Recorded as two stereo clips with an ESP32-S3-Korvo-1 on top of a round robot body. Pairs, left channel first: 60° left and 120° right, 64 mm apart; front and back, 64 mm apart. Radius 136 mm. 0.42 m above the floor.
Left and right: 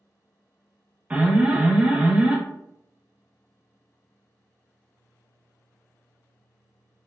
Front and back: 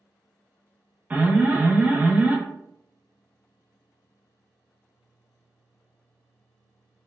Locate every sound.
1.1 s an alarm: 160° right, 0.8 m